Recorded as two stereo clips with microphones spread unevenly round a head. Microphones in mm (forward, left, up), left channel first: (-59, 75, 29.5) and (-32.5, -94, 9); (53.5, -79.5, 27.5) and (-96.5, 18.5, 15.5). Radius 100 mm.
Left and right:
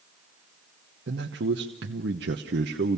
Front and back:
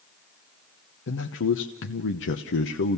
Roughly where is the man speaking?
Ahead right.